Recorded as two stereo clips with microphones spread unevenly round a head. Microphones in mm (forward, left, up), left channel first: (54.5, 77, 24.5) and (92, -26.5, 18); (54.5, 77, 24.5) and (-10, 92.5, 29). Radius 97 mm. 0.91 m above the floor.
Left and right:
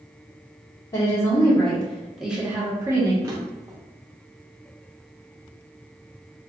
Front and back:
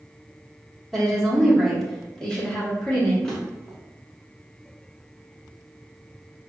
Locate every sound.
0.9 s a woman speaking: 65° left, 1.1 m; by 3.1 s 80° right, 1.0 m
3.2 s a drawer: 95° right, 0.5 m